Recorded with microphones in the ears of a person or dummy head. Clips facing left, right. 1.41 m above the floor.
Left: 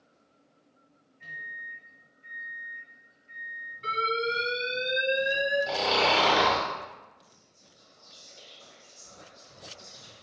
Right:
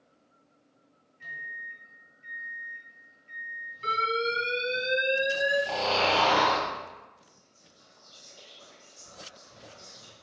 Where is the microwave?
60° right (ahead or behind), 1.5 m.